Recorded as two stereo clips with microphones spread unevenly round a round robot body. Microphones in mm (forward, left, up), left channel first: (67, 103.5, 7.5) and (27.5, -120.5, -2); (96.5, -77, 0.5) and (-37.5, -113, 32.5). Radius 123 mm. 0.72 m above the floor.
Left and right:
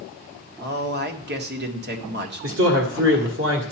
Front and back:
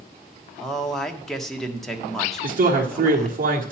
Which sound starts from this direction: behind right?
A man speaking, at 2.4 s.